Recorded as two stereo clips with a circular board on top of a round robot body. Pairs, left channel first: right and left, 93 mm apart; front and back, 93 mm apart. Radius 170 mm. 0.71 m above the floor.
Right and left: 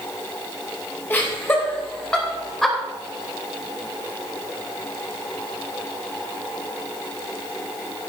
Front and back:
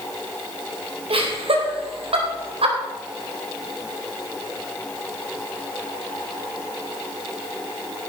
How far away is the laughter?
About 4 m.